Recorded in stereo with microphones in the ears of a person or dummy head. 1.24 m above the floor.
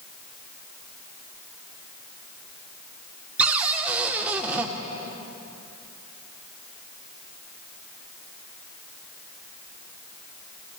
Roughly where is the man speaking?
No man speaking in this recording.